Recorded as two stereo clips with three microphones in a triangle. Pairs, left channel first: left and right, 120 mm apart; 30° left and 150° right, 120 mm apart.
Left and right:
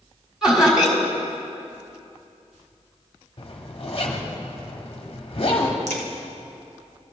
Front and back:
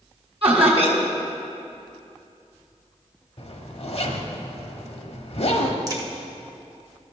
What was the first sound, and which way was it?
Laughter, 175° right.